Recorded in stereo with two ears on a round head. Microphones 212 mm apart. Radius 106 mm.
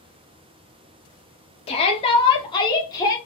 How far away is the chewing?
No chewing in this recording.